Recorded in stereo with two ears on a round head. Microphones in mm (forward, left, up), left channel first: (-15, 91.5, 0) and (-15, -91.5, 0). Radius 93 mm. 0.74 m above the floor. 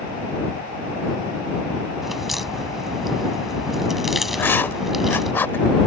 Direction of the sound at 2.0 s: Centre (ahead or behind).